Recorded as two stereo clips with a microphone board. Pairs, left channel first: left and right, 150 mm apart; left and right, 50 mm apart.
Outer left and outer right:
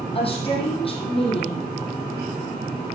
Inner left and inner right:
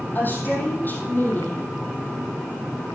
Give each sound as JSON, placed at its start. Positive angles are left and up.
{"t": 0.1, "sound": "a woman speaking", "side_deg": 35, "distance_m": 5.0}